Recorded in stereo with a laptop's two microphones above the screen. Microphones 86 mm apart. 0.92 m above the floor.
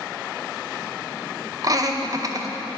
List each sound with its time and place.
1.6 s laughter: 40° right (ahead or behind), 0.7 m